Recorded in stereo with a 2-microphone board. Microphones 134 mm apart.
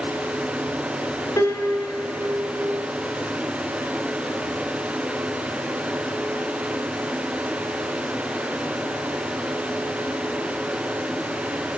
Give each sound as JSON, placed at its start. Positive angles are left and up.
{"t": 1.4, "sound": "a piano", "side_deg": 25, "distance_m": 0.6}